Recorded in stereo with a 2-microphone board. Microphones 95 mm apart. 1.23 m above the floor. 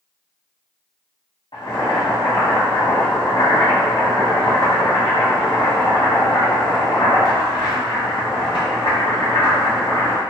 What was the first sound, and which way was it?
Boiling, 70° left (ahead or behind).